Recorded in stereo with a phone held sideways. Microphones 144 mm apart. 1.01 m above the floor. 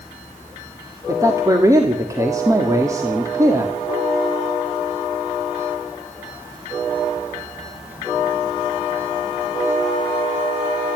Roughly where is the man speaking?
Right.